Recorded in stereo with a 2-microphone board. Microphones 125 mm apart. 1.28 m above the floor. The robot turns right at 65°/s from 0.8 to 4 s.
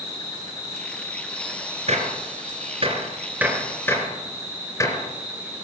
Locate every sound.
0.0 s an insect: 135° left, 2.5 m; by 5.7 s 15° right, 2.5 m
1.9 s a gunshot: 60° right (ahead or behind), 3 m; by 5.1 s 25° left (ahead or behind), 3 m